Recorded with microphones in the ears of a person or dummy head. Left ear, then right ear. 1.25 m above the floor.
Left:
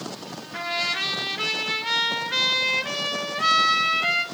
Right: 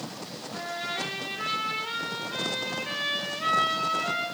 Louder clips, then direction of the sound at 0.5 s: Left 7 dB; 60° left (ahead or behind).